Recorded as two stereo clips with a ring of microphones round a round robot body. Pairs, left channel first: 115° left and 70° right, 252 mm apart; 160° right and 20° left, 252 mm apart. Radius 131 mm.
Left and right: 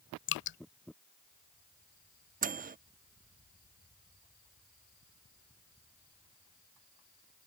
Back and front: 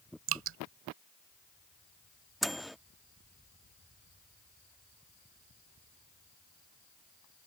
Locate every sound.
0.3 s dripping: 65° left
2.4 s a microwave: 65° right